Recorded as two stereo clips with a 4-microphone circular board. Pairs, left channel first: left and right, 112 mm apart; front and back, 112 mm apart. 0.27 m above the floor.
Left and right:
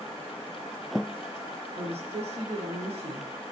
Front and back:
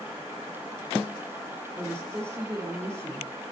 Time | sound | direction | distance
1.8 | a woman speaking | 115° right | 6 m